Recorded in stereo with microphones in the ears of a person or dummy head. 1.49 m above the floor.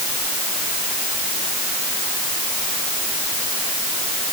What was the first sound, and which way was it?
Only background noise.